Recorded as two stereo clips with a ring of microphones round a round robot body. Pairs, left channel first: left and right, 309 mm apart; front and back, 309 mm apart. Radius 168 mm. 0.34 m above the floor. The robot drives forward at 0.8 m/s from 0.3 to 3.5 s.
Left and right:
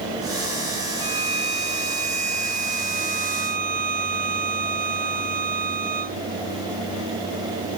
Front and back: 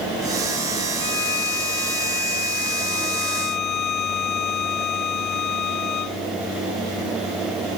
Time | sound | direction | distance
1.0 | a violin | 20° right | ?